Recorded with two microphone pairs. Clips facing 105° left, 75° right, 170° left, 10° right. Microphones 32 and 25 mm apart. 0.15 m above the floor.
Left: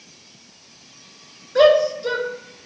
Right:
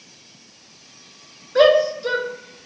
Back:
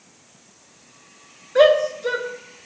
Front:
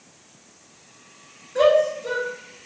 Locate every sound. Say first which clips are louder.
1.6 s a shout: even, back 2 dB; 155° right, 2.5 m